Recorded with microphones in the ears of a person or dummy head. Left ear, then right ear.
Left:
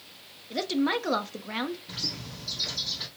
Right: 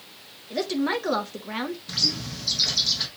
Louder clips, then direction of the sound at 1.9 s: Right 9 dB; 25° right (ahead or behind).